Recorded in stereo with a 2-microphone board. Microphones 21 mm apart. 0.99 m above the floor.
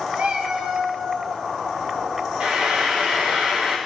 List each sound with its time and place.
0.1 s a cat meowing: 65° right (ahead or behind), 0.6 m; by 1.4 s 55° right (ahead or behind), 1.2 m
2.4 s frying: 70° right (ahead or behind), 1.5 m